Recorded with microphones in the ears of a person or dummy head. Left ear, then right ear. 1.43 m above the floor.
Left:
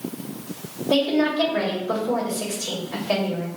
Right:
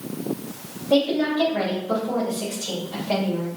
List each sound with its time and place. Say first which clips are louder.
0.9 s a woman speaking: even; 45° left (ahead or behind), 2 m